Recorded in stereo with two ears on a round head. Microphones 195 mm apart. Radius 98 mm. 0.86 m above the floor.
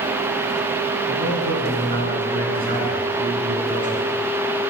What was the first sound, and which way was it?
A man speaking, 50° right (ahead or behind).